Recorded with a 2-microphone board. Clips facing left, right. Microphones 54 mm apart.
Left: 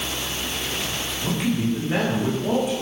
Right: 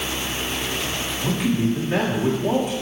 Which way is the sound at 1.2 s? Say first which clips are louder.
Right 2 dB; centre (ahead or behind).